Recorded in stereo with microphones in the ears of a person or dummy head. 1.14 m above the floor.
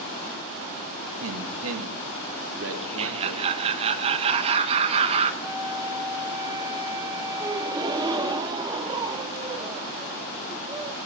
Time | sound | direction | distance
1.2 | a man speaking | 60° right (ahead or behind) | 1.4 m
2.8 | laughter | 30° right (ahead or behind) | 1.2 m
5.4 | a flute | 20° right (ahead or behind) | 3 m
7.4 | a gasp | 20° right (ahead or behind) | 0.8 m